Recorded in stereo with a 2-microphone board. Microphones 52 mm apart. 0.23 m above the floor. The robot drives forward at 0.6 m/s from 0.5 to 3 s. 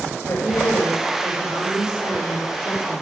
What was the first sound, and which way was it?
A woman speaking, 70° left (ahead or behind).